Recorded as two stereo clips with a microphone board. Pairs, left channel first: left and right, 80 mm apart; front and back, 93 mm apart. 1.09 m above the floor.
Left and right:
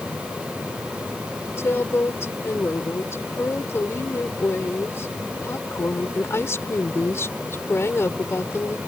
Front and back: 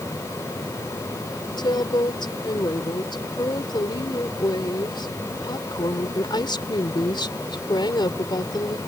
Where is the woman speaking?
35° left.